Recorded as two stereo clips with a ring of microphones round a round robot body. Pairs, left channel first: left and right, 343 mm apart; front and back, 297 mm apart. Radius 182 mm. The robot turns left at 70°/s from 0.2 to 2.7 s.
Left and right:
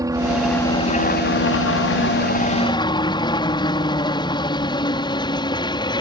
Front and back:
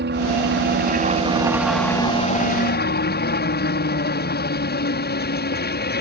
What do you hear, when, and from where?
0.0 s a helicopter: 165° right; by 6.0 s 20° left